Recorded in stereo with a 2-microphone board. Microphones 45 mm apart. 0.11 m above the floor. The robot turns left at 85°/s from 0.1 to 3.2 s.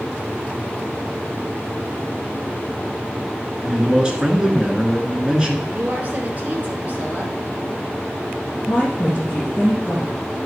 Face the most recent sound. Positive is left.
turn(degrees=15)  # may be behind; listen again after turning